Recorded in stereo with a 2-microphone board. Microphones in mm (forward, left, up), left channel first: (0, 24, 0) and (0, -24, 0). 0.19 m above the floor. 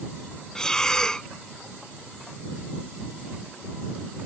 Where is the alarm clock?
I don't hear an alarm clock.